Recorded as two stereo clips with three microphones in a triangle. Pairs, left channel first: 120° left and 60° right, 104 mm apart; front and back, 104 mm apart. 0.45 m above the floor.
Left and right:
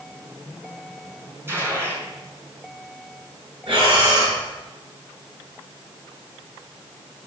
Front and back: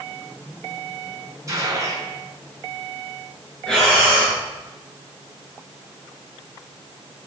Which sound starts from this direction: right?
Breathing, at 3.7 s.